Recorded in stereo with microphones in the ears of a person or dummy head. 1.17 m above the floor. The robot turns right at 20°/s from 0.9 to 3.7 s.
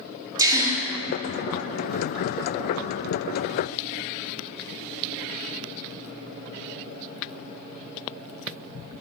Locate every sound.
0.4 s a gasp: 15° right (ahead or behind), 2 m